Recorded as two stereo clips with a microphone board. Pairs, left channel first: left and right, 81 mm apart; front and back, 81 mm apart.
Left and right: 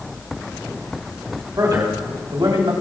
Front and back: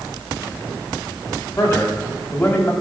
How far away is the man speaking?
About 4 m.